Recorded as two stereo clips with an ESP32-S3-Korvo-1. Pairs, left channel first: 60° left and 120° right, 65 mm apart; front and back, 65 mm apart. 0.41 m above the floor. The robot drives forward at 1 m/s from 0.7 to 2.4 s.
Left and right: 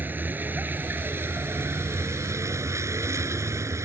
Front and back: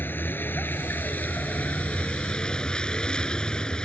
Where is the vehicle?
55° right; by 3.8 s 75° right.